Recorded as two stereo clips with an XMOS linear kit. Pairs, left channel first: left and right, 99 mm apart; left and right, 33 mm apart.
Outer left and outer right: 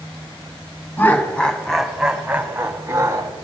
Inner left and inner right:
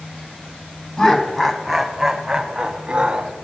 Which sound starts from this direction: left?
Laughter, at 1.0 s.